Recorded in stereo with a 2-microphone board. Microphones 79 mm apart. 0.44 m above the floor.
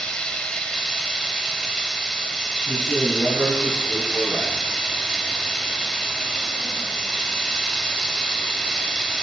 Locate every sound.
0.0 s running water: 10° left (ahead or behind), 1.1 m
2.7 s a man speaking: 15° right (ahead or behind), 3.5 m